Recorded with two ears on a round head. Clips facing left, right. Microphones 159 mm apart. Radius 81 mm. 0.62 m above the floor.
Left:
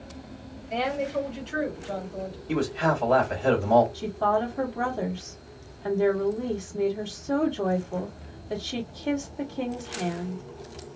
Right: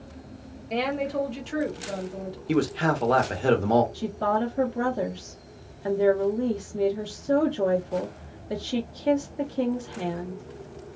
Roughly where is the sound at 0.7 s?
Right.